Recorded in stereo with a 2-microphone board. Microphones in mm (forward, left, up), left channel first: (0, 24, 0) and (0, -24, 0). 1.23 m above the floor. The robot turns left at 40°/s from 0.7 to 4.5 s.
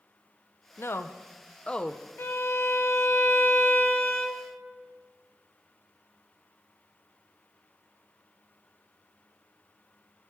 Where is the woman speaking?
60° left (ahead or behind), 0.5 m; by 2.0 s 15° left (ahead or behind), 0.5 m.